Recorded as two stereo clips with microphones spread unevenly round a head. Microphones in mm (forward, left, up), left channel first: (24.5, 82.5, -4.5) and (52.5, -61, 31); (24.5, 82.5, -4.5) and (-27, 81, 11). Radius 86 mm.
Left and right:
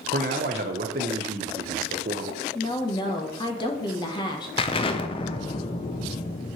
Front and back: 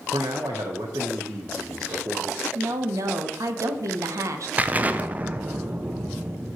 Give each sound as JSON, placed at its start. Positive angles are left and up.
{"t": 0.1, "sound": "a man speaking", "azimuth_deg": -125, "distance_m": 0.8}
{"t": 2.5, "sound": "a woman speaking", "azimuth_deg": 155, "distance_m": 0.9}
{"t": 4.6, "sound": "an explosion", "azimuth_deg": 110, "distance_m": 0.5}